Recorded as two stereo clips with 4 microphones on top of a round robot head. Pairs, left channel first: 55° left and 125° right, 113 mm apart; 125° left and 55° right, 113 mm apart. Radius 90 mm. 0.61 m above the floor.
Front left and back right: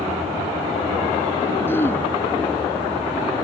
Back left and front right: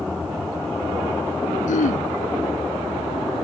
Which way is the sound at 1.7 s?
125° left.